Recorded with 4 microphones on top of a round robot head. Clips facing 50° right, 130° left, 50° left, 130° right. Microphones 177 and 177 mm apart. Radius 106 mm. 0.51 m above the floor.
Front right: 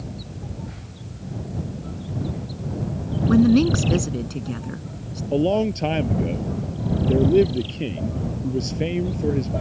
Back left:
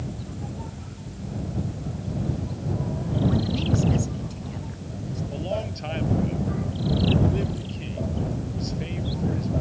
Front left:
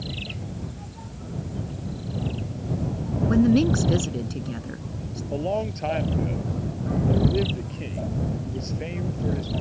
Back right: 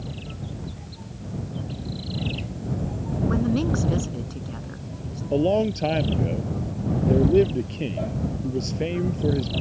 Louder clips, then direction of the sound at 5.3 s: Front right 12 dB, back right 6 dB; 80° right.